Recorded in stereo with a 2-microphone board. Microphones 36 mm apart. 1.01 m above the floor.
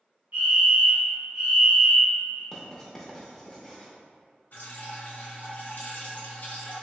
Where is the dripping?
55° left (ahead or behind), 1.3 m.